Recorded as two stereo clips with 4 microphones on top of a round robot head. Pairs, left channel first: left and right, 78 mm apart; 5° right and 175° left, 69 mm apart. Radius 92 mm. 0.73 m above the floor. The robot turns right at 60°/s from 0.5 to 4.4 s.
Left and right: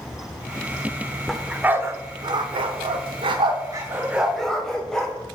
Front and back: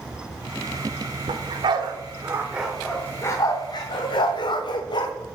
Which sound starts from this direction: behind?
A dog barking, at 1.3 s.